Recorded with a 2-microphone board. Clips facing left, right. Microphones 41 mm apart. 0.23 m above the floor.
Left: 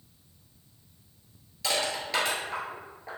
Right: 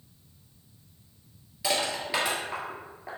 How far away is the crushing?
About 1.2 m.